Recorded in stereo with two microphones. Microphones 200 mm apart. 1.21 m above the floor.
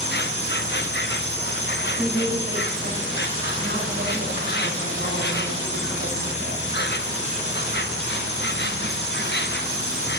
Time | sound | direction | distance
0.0 | an insect | 60° left (ahead or behind) | 0.8 m
2.0 | a woman speaking | 60° right (ahead or behind) | 5.5 m